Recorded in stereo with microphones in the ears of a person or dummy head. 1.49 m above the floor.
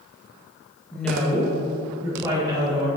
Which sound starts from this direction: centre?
A woman speaking, at 0.9 s.